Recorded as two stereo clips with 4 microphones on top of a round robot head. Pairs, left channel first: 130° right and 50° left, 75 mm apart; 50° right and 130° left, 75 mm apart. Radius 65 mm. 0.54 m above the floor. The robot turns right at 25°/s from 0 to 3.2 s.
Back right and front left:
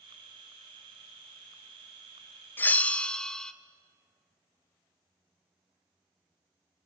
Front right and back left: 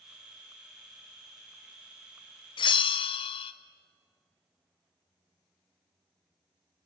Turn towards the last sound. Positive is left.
turn(degrees=-50)